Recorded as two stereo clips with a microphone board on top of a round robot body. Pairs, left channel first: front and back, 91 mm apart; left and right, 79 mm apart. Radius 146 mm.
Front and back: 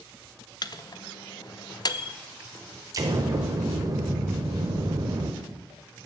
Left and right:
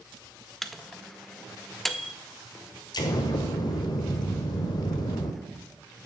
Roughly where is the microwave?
Ahead.